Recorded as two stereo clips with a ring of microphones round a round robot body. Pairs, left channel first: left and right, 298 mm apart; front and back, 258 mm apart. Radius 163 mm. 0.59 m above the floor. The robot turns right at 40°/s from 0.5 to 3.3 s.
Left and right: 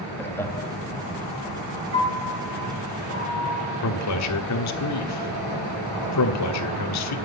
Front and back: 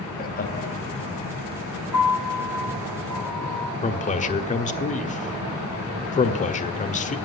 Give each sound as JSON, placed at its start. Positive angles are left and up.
{"t": 0.2, "sound": "laughter", "azimuth_deg": 10, "distance_m": 1.4}
{"t": 1.9, "sound": "a piano", "azimuth_deg": -135, "distance_m": 8.0}
{"t": 3.8, "sound": "a man speaking", "azimuth_deg": 60, "distance_m": 1.3}